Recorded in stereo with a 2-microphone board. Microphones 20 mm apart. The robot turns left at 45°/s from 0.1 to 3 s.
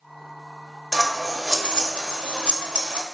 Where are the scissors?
15° right (ahead or behind), 0.5 m; by 3.0 s 55° right (ahead or behind), 0.5 m.